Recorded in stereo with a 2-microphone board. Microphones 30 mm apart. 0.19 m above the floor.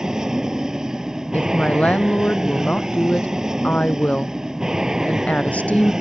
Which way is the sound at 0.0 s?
20° right (ahead or behind).